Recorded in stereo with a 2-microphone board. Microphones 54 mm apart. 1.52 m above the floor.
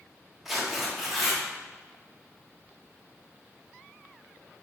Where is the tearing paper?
5° right (ahead or behind), 1.6 m.